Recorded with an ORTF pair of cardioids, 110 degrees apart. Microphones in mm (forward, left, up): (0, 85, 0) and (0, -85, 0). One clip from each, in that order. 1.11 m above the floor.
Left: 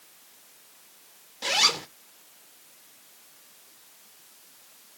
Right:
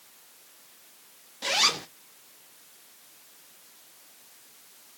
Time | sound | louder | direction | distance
1.4 | a zipper | left 1 dB | 5° left | 0.6 m